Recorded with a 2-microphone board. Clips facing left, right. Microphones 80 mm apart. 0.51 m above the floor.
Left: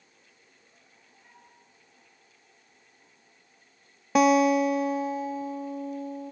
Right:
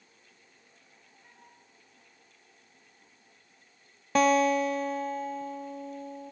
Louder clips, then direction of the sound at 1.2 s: Left 1 dB; 5° right (ahead or behind).